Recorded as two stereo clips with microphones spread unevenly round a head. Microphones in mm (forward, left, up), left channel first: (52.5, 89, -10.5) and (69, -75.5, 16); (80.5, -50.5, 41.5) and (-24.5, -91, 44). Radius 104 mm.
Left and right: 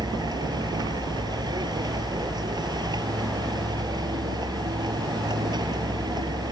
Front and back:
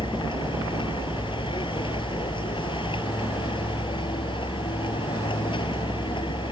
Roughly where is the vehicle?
Ahead.